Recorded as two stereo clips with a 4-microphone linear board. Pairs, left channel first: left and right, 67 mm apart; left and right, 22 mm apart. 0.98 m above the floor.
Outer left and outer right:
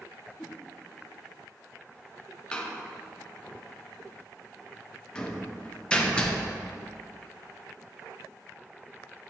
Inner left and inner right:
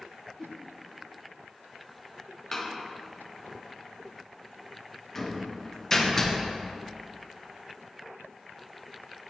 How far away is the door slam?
About 0.6 m.